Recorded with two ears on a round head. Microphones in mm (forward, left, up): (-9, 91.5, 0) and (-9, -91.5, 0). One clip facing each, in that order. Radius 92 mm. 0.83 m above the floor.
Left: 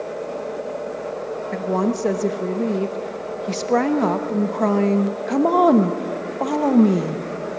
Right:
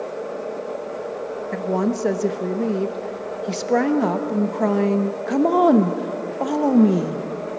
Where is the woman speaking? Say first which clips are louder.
Even; 5° right (ahead or behind), 0.9 m.